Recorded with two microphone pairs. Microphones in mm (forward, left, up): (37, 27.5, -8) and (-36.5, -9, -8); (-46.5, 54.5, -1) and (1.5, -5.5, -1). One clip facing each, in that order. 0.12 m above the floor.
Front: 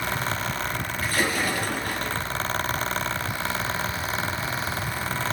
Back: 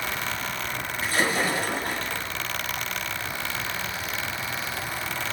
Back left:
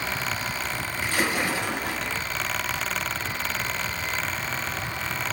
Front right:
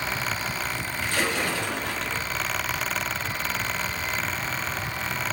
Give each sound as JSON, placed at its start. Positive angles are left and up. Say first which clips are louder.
{"t": 1.0, "sound": "a splash", "louder": "back 1 dB, back left 1 dB", "azimuth_deg": 180, "distance_m": 1.8}